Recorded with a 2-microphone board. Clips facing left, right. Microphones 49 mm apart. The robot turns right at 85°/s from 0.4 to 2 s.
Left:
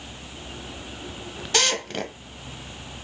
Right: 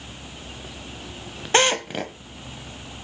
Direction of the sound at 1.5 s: 50° right.